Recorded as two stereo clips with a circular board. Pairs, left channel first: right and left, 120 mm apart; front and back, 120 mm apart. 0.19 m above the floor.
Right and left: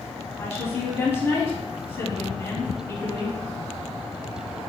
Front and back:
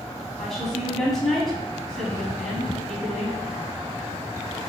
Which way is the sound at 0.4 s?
80° right.